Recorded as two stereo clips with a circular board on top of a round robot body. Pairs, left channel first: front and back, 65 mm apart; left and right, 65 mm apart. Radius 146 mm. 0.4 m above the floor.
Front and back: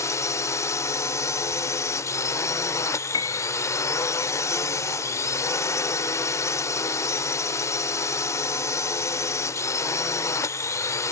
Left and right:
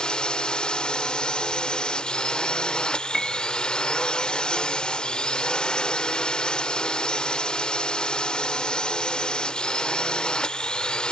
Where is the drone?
15° left.